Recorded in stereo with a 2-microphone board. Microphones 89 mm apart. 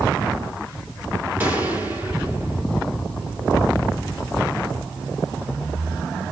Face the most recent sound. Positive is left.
turn(degrees=-20)  # may be behind; listen again after turning